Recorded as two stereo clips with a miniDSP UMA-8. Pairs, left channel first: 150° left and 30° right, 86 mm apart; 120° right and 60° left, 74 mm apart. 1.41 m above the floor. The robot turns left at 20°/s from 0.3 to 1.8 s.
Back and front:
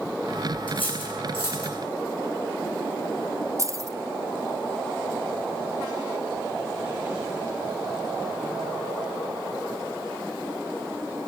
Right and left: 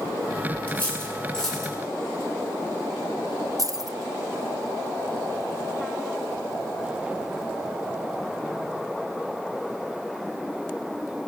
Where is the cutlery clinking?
175° left, 8.5 m; by 1.8 s 150° left, 8.5 m.